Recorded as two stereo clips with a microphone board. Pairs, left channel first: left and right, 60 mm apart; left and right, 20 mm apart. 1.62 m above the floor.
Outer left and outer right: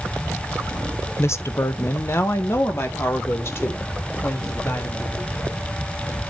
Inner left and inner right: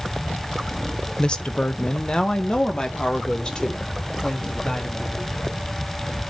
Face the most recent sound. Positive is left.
turn(degrees=40)  # may be behind; listen again after turning